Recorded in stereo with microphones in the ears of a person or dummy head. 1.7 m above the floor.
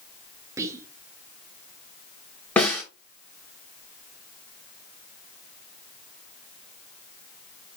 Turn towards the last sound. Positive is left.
turn(degrees=5)  # may be behind; listen again after turning